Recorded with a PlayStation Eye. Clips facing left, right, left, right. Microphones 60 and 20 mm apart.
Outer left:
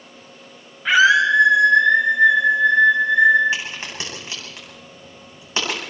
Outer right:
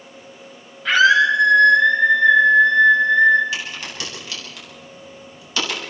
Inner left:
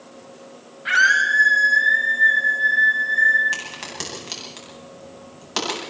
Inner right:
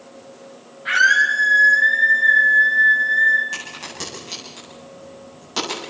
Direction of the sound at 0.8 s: 15° left (ahead or behind).